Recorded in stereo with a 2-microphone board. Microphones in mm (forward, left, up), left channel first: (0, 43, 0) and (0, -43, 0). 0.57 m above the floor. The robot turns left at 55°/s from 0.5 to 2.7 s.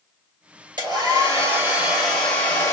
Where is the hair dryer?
115° right, 3 m; by 2.7 s 140° left, 3 m.